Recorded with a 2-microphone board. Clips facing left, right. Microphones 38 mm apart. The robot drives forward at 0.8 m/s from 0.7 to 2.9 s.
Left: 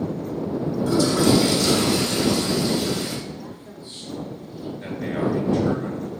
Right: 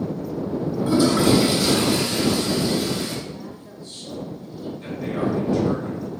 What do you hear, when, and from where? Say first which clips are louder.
0.9 s a toilet flushing: right 1 dB; 20° right (ahead or behind), 1.1 m; by 3.1 s 10° right (ahead or behind), 2.5 m
3.2 s a woman speaking: even; 20° left (ahead or behind), 2.5 m
4.8 s a man speaking: even; 40° left (ahead or behind), 4 m